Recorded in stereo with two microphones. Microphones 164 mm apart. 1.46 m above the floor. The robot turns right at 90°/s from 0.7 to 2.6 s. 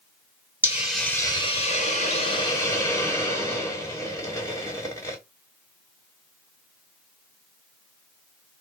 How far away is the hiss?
About 1.3 m.